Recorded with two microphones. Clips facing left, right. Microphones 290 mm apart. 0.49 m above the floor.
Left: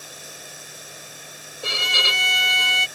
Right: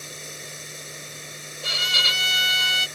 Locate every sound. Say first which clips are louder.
0.0 s running water: right 3 dB; 25° right (ahead or behind)
1.6 s a violin: left 6 dB; 60° left (ahead or behind)